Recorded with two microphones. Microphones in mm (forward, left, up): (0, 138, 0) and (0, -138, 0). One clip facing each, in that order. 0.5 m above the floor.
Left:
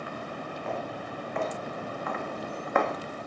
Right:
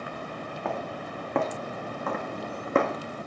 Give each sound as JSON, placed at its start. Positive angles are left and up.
{"t": 0.7, "sound": "footsteps", "side_deg": -70, "distance_m": 2.5}